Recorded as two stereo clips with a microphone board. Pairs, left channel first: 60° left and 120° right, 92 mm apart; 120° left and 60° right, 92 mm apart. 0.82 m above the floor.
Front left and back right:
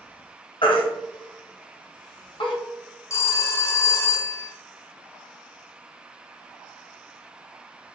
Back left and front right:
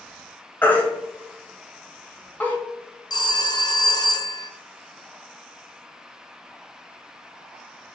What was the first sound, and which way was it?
A baby crying, 50° left.